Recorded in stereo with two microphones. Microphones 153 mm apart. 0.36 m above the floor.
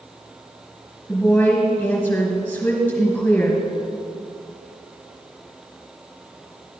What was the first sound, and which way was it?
A woman speaking, 10° left (ahead or behind).